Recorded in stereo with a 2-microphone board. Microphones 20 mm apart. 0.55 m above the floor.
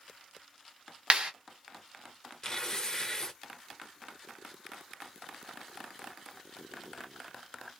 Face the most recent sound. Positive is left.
turn(degrees=25)  # may be behind; listen again after turning